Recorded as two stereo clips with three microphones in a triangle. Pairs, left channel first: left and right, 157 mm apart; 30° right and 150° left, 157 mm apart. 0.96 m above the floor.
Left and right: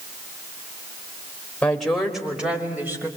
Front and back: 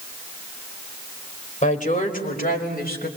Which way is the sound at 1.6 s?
5° left.